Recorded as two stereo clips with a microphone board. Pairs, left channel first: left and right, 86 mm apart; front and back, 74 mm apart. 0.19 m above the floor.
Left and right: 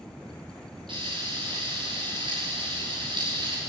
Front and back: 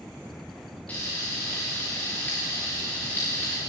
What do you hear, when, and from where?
0.9 s frying: 70° right, 7.5 m